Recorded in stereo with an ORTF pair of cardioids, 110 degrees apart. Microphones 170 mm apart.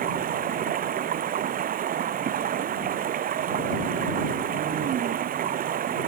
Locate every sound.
0.0 s running water: 50° right